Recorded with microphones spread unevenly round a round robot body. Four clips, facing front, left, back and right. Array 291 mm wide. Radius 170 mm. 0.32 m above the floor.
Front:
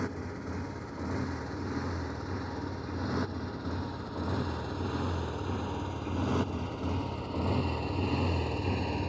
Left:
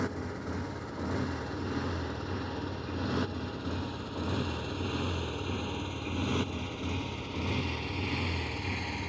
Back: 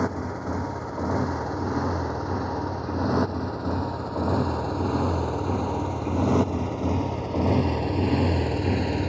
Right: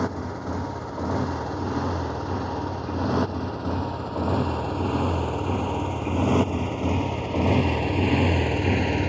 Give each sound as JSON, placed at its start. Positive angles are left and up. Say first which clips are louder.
{"t": 0.0, "sound": "a motorcycle", "louder": "right 7 dB, back 9 dB", "azimuth_deg": -160}